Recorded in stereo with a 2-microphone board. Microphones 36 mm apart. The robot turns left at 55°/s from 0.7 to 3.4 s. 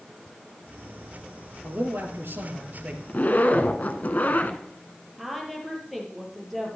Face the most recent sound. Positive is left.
turn(degrees=0)  # may be behind; listen again after turning